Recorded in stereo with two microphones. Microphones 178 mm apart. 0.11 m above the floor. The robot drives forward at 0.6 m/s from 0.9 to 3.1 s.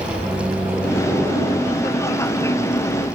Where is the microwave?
10° right (ahead or behind), 3.5 m; by 1.8 s 15° right (ahead or behind), 3 m.